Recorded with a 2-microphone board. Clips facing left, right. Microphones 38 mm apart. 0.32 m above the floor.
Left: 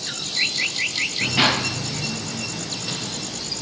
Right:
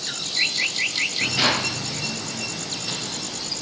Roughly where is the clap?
Left.